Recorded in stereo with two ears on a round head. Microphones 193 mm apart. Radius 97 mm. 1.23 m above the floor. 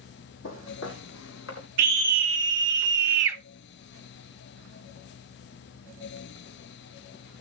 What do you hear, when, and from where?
0.4 s footsteps: 60° left (ahead or behind), 2.5 m; by 1.7 s 65° left (ahead or behind), 3.5 m
1.8 s a scream: 60° right (ahead or behind), 2.5 m